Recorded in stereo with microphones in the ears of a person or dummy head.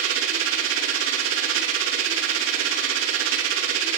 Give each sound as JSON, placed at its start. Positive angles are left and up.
{"t": 0.0, "sound": "a machine running", "side_deg": -85, "distance_m": 3.0}